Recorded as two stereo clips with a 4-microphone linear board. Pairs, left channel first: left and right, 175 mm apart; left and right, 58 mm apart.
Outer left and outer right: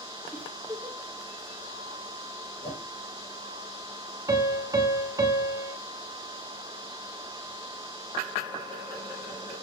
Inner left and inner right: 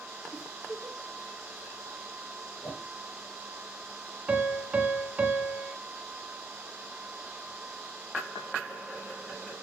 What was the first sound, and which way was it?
A giggle, 5° right (ahead or behind).